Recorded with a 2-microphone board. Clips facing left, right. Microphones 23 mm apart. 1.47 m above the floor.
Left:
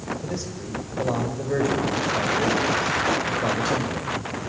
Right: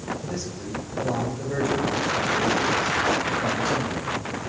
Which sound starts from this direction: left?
A man speaking, at 0.2 s.